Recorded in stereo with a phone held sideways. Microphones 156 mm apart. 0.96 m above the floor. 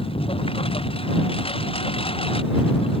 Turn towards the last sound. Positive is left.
turn(degrees=35)  # may be behind; listen again after turning